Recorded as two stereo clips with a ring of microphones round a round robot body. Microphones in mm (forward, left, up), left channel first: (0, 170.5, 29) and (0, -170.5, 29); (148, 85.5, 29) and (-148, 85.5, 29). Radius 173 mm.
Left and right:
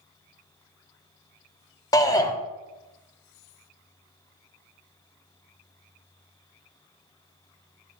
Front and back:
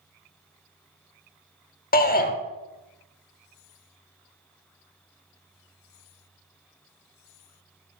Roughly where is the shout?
Ahead.